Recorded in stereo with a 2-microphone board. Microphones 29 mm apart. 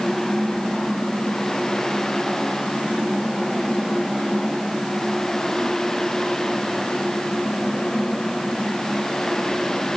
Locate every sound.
Only background noise.